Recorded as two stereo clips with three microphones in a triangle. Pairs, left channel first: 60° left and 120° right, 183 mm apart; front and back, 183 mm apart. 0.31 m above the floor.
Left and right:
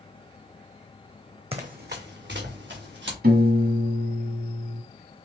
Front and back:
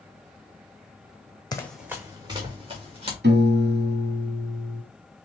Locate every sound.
1.5 s running footsteps: 70° right, 0.7 m; by 3.1 s 125° right, 3 m
3.2 s a piano: 155° right, 0.8 m